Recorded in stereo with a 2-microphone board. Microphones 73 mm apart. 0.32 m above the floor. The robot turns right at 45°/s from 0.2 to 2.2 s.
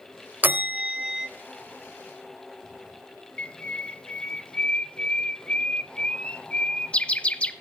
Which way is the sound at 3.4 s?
20° left (ahead or behind).